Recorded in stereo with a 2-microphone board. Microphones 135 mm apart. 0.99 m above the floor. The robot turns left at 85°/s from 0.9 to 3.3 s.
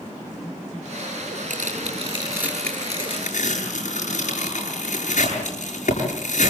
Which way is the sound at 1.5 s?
85° right.